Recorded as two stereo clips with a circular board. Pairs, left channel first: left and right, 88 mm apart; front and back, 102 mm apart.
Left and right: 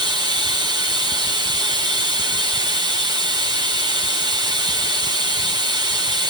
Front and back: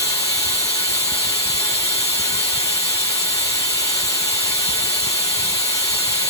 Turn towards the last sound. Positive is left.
turn(degrees=-55)